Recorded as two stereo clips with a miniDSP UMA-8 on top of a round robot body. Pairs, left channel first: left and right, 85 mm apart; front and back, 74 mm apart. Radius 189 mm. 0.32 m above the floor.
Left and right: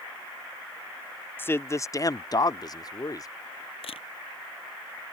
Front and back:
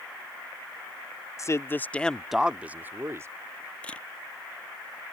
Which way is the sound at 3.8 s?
75° left.